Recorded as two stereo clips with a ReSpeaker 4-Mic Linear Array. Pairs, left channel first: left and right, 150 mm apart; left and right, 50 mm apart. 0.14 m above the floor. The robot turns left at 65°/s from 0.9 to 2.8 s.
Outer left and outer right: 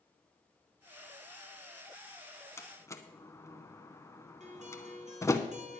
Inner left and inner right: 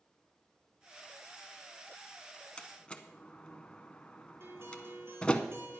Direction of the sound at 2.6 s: 20° left (ahead or behind).